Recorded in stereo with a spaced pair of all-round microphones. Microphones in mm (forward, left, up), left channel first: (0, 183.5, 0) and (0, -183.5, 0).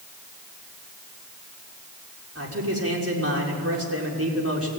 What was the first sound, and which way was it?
A man speaking, 35° right (ahead or behind).